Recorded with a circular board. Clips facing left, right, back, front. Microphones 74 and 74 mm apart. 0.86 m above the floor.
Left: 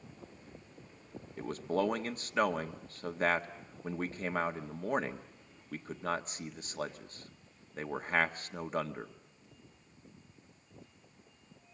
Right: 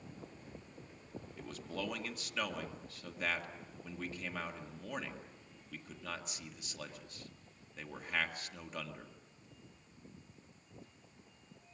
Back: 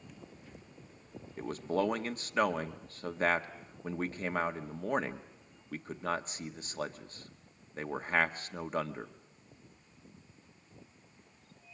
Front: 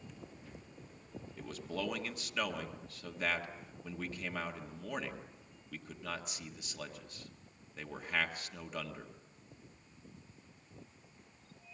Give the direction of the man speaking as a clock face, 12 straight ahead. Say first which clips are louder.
Left 11 dB, back 9 dB; 8 o'clock.